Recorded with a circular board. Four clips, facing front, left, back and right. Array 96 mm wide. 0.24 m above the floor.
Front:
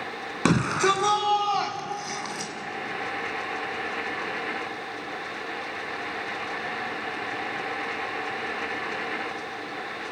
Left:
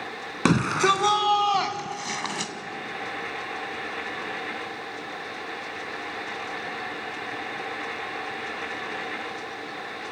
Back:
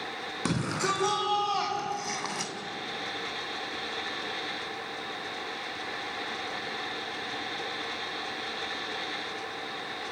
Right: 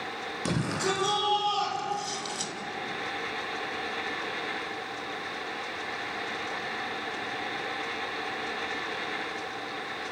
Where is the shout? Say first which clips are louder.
Left 9 dB, front 8 dB; 50° left, 2.5 m; by 2.5 s 105° left, 1.7 m.